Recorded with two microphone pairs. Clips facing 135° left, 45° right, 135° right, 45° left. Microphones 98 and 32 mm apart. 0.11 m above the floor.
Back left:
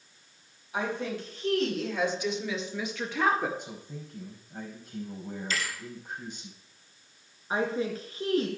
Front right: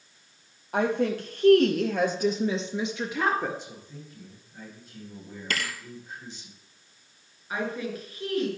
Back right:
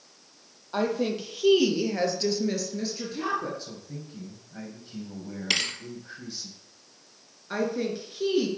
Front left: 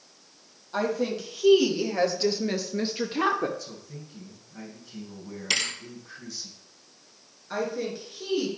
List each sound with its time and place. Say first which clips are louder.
0.7 s a woman speaking: front right 7 dB, even; 65° right, 2.5 m; by 3.5 s 45° left, 1.7 m
3.6 s a man speaking: back left 2 dB, back right 1 dB; 170° left, 4.5 m
5.5 s a thud: front right 3 dB, even; 55° right, 1.4 m
7.5 s a woman speaking: back left 2 dB, back right 2 dB; 160° left, 1.9 m